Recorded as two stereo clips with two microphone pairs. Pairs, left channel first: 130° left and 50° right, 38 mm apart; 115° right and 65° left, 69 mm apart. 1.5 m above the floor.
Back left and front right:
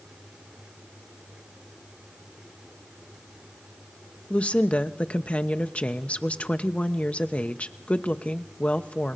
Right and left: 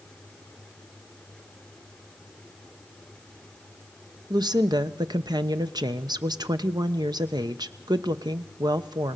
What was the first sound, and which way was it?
A woman speaking, 70° left.